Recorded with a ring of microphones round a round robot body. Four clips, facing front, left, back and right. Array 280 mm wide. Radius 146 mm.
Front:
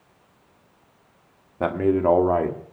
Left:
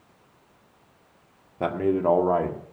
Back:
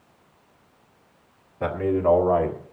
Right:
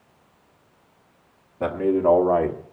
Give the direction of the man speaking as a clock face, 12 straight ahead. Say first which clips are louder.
Right 3 dB, front 2 dB; 12 o'clock.